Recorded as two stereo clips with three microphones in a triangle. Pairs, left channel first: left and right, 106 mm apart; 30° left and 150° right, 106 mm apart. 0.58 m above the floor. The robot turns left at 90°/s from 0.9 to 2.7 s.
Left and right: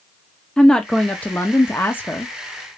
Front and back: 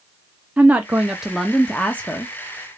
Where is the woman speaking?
160° left, 0.5 m; by 2.3 s 30° left, 0.5 m.